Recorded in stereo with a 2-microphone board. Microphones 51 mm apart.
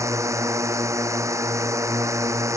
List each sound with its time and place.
0.0 s a drone: 75° right (ahead or behind)